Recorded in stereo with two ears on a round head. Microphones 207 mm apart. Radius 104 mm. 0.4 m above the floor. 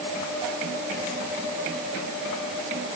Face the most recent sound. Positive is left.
No sound to turn to.